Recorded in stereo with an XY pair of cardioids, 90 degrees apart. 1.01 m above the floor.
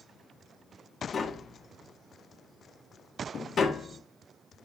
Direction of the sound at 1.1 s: 45° left.